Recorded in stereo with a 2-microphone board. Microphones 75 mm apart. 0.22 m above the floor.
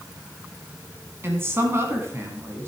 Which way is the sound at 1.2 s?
30° right (ahead or behind).